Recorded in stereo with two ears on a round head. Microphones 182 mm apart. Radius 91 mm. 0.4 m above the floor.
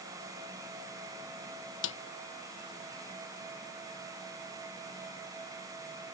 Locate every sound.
1.8 s a snare drum: 70° left (ahead or behind)